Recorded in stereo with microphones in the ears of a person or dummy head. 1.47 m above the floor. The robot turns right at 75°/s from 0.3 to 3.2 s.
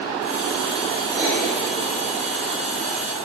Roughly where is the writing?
Centre.